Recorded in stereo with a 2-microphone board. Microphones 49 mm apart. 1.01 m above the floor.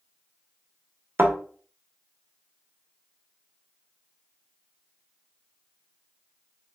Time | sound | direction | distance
1.2 | a thud | 50° right (ahead or behind) | 1.0 m